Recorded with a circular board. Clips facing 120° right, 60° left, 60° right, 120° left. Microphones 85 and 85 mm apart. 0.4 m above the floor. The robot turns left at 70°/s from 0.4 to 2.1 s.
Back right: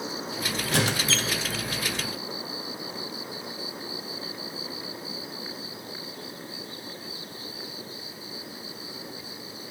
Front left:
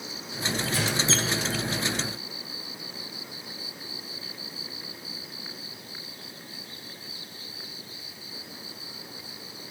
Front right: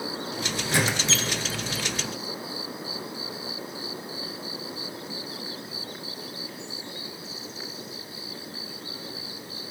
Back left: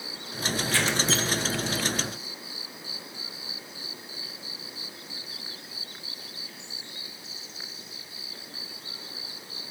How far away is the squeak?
About 1.1 m.